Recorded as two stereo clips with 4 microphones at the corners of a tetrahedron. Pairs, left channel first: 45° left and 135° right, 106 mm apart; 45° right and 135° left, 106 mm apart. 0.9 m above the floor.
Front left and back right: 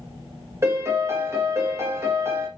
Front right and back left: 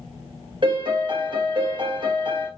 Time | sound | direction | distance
0.6 | a piano | 165° left | 0.9 m